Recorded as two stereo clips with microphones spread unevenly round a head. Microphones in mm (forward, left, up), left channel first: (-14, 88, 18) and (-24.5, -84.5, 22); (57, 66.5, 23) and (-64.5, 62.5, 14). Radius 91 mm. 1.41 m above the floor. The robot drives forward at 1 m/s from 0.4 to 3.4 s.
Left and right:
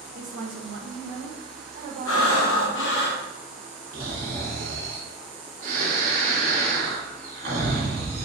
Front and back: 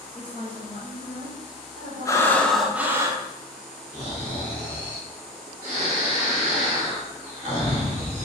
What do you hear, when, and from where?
0.1 s a woman speaking: 80° right, 1.1 m; by 3.0 s 155° right, 2.5 m
2.0 s breathing: 65° left, 1.2 m; by 3.2 s 120° left, 1.3 m
3.9 s snoring: 130° right, 3 m